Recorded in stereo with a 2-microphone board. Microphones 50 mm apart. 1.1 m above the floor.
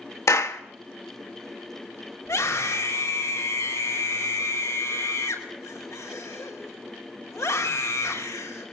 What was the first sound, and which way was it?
A clap, 75° left (ahead or behind).